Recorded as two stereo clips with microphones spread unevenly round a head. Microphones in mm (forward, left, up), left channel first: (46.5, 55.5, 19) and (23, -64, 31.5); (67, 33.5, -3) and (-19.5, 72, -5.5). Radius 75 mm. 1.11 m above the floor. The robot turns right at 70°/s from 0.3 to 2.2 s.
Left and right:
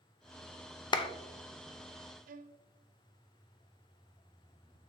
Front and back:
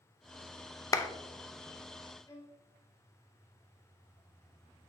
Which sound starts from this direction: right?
A violin, at 2.3 s.